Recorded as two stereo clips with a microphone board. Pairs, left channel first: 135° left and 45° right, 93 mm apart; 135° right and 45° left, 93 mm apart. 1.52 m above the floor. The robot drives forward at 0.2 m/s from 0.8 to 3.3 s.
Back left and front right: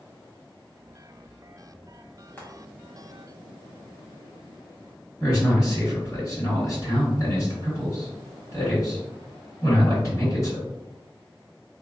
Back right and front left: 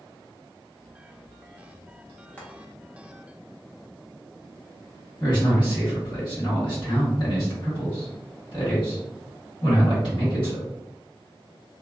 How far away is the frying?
About 1.0 m.